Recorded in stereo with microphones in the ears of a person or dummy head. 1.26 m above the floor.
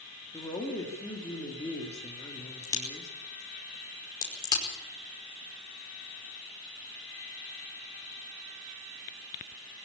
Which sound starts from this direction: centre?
A woman speaking, at 0.3 s.